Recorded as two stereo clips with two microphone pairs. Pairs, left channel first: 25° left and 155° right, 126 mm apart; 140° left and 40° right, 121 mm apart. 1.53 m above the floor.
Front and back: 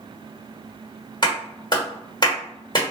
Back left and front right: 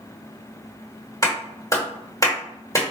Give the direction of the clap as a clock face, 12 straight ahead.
9 o'clock.